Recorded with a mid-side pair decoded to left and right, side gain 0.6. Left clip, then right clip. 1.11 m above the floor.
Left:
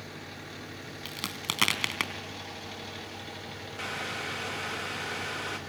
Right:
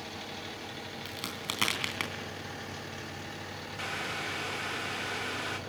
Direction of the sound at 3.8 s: 5° left.